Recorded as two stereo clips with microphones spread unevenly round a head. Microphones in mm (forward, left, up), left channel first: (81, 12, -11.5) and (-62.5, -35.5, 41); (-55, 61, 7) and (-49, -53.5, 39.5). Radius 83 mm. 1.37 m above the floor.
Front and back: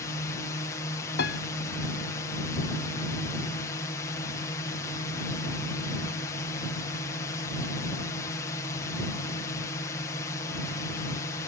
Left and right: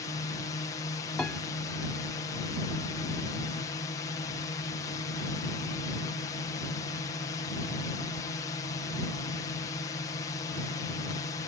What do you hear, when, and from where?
0.0 s a drone: 60° left
1.2 s a piano: 5° left